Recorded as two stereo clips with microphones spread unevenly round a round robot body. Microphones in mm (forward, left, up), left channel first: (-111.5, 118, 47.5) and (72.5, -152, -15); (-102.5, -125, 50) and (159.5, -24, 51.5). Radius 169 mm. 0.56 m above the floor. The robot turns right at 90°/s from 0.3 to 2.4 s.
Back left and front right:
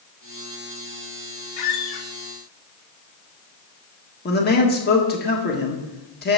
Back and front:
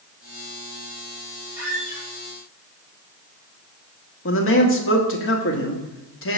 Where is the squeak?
105° left, 1.2 m; by 2.1 s 150° left, 1.2 m.